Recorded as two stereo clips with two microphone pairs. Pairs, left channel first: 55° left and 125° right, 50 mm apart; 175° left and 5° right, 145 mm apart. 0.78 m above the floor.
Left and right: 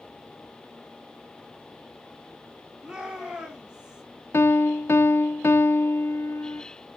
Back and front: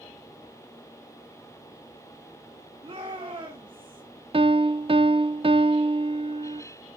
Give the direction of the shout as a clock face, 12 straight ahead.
2 o'clock.